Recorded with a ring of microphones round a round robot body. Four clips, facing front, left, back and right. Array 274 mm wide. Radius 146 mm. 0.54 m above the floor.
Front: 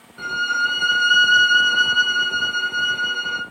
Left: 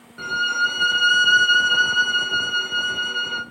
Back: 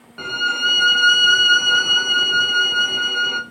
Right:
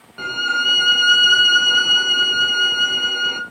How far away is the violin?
About 0.5 m.